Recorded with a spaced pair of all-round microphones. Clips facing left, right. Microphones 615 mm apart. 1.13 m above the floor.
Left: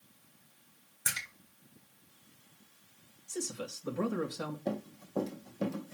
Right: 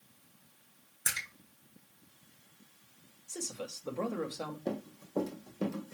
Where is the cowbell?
No cowbell in this recording.